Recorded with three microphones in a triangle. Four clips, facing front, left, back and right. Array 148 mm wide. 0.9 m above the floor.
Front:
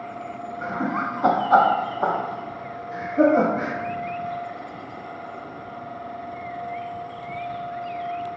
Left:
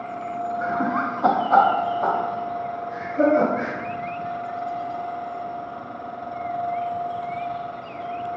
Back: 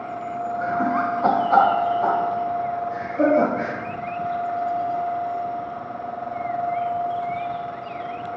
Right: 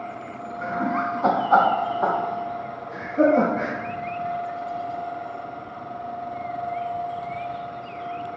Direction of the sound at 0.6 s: 110° left.